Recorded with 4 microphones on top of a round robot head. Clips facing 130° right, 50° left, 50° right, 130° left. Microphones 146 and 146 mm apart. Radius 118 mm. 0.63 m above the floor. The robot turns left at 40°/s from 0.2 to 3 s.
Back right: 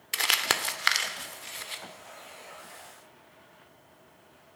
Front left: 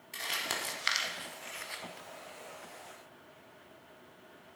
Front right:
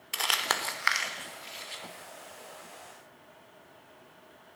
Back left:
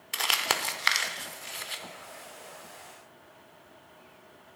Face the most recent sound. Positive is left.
turn(degrees=110)